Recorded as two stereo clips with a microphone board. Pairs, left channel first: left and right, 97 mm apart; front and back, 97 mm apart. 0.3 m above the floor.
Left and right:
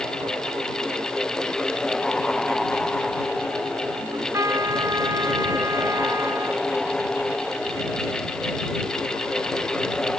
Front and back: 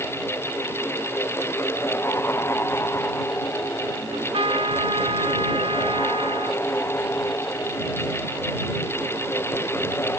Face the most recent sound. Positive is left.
turn(degrees=-150)